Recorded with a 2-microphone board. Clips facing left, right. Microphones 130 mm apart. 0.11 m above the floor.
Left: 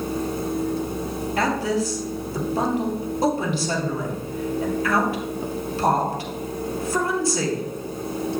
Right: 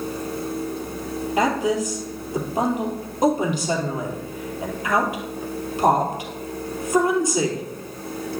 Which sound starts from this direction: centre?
A woman speaking, at 1.4 s.